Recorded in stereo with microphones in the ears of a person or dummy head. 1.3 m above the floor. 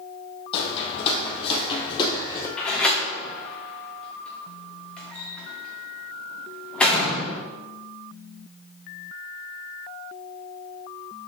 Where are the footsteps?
40° left (ahead or behind), 3 m; by 2.5 s 20° left (ahead or behind), 2 m.